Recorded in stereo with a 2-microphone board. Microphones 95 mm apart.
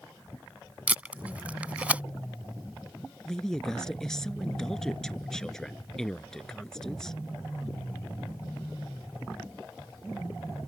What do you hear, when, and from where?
0.9 s tape being pulled: 15° right (ahead or behind)
3.2 s a woman speaking: 5° left (ahead or behind)